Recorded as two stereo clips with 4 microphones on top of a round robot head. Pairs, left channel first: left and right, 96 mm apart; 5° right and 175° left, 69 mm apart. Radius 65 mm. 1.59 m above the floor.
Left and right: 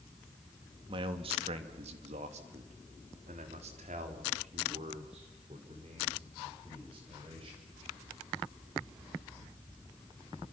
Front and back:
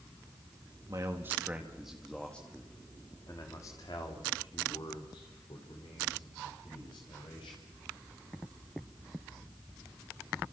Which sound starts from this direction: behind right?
A man speaking, at 0.9 s.